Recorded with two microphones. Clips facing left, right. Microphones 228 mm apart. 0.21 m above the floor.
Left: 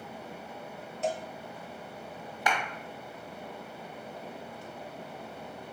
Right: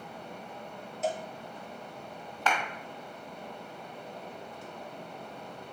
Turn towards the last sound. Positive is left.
turn(degrees=15)  # may be behind; listen again after turning